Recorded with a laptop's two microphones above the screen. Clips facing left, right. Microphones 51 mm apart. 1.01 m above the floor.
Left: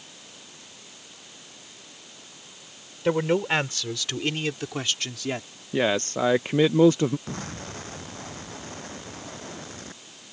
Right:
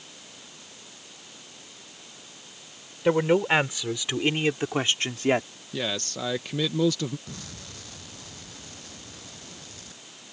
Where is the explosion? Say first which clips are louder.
Left 7 dB; 40° left (ahead or behind).